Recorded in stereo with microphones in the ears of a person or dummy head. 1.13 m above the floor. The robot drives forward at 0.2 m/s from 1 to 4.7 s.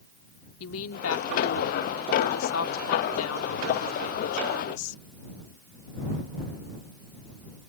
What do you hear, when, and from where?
0.6 s a woman speaking: 85° left; by 5.0 s 80° left